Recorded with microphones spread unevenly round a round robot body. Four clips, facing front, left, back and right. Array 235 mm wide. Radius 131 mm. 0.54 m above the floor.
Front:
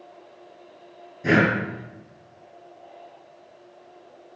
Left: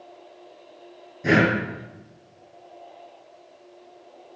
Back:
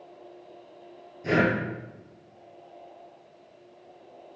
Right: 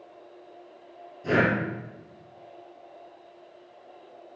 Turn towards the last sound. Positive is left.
turn(degrees=40)